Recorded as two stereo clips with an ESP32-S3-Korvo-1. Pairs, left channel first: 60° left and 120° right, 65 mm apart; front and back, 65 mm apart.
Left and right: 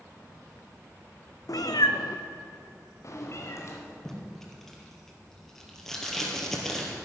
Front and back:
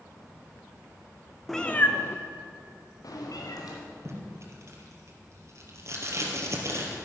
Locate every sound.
1.5 s a cat meowing: 90° left, 0.8 m; by 3.8 s 15° left, 3 m
4.0 s tape being pulled: 145° left, 2.5 m